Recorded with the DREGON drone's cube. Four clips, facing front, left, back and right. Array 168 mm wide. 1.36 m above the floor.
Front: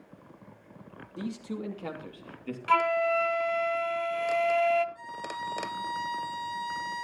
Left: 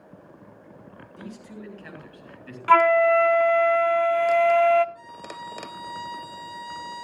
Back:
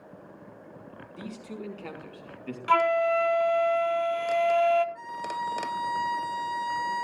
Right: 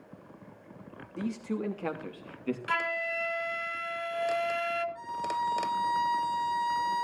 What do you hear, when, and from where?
1.2 s a man speaking: 60° right, 3 m; by 2.6 s 90° right, 2.5 m
2.7 s a flute: 95° left, 0.6 m
5.0 s a violin: 145° right, 1.3 m